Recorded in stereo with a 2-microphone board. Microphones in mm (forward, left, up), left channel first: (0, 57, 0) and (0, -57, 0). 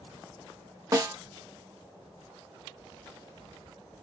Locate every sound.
0.9 s a snare drum: 35° right (ahead or behind), 0.8 m